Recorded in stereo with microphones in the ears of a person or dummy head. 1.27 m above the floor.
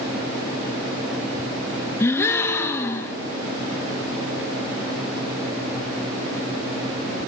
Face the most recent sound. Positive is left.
turn(degrees=10)  # may be behind; listen again after turning